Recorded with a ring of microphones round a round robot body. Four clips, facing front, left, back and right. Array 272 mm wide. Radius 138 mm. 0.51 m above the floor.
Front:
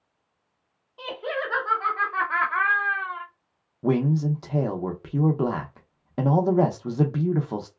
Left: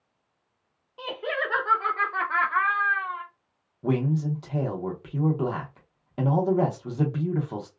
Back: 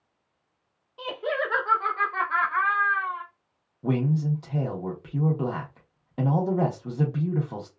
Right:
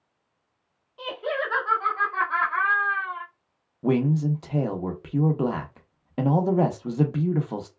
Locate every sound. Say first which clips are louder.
1.0 s laughter: right 1 dB, back 2 dB; 105° left, 1.4 m; by 3.2 s 5° right, 1.5 m
3.8 s a man speaking: right 3 dB, front 3 dB; 35° right, 0.7 m